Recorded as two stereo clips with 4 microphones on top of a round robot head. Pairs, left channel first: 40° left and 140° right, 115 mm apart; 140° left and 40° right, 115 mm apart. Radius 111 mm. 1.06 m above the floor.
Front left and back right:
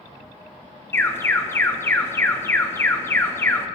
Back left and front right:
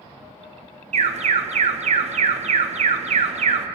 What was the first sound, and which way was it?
An alarm, 30° right.